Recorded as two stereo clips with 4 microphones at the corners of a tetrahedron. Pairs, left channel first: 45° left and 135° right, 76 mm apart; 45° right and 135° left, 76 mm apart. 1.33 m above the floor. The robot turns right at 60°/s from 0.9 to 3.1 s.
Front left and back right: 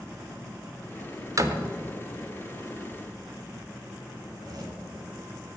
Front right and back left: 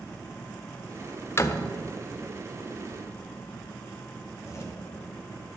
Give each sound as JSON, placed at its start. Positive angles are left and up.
{"t": 1.4, "sound": "a door slam", "azimuth_deg": -100, "distance_m": 0.6}
{"t": 4.2, "sound": "a zipper", "azimuth_deg": -100, "distance_m": 1.7}